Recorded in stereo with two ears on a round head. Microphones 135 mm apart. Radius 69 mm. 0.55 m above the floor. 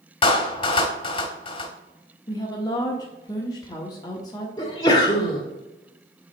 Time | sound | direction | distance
0.2 | a clap | 35° left (ahead or behind) | 1.1 m
2.3 | a woman speaking | 25° left (ahead or behind) | 1.0 m
4.6 | a sneeze | 25° left (ahead or behind) | 1.3 m